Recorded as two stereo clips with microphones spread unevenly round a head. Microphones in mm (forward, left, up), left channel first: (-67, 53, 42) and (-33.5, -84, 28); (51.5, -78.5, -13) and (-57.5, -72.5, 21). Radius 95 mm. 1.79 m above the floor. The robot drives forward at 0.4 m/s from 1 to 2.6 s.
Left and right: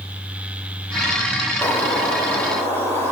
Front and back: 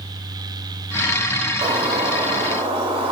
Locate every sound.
1.6 s a bird: 175° left, 1.1 m